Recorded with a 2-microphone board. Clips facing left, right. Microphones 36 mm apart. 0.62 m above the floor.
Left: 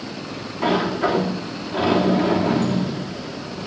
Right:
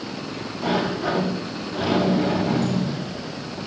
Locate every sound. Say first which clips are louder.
0.6 s a sliding door: left 3 dB; 50° left (ahead or behind), 8.5 m